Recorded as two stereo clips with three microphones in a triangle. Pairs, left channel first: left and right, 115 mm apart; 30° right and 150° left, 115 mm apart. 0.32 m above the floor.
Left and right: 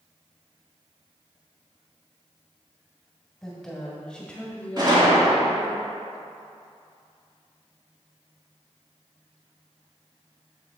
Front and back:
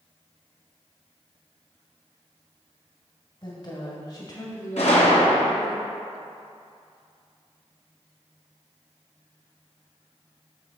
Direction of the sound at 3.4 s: 5° left.